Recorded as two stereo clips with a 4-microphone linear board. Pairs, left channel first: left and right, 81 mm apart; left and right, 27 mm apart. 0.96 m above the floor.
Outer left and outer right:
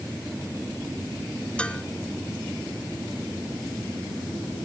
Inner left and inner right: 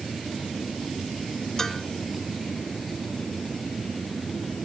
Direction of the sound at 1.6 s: 15° left (ahead or behind).